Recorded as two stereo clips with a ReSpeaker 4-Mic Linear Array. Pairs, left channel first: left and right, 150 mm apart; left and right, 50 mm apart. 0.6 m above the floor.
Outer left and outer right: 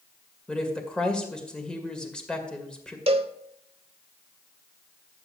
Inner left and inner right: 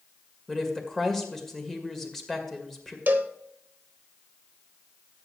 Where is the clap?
No clap in this recording.